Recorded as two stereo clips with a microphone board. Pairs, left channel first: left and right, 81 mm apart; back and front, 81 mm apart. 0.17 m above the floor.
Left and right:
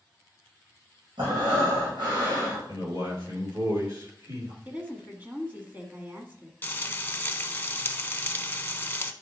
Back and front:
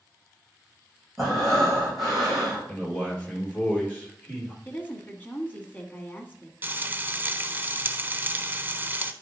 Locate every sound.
1.2 s breathing: 90° right, 4.5 m
2.7 s a man speaking: 110° right, 3 m
4.7 s a woman speaking: 135° right, 1.6 m
6.6 s frying: 45° left, 0.7 m